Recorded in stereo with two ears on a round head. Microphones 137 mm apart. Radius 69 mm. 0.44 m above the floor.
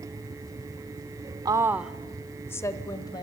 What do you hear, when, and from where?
1.4 s a woman speaking: 25° right (ahead or behind), 0.8 m; by 3.2 s 25° left (ahead or behind), 1.7 m